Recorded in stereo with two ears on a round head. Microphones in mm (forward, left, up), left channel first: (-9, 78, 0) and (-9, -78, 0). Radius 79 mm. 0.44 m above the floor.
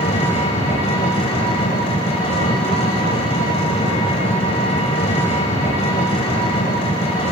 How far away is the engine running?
About 1.8 m.